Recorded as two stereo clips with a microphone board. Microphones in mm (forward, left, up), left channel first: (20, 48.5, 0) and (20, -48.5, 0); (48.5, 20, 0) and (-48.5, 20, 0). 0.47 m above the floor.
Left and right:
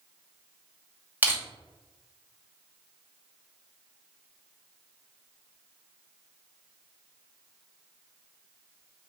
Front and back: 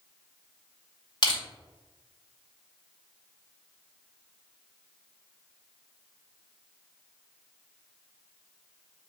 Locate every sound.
1.2 s crushing: 25° right, 2.5 m